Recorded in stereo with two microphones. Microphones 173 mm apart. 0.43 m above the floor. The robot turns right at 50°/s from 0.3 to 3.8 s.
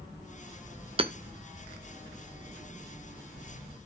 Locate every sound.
1.0 s hammering: 35° right (ahead or behind), 0.9 m; by 1.1 s 30° right (ahead or behind), 0.9 m